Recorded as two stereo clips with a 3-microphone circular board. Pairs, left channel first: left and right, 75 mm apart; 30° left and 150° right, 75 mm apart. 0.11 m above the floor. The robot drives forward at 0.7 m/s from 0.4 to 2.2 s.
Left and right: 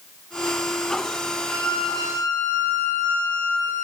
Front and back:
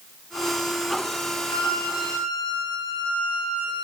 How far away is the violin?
About 7.5 m.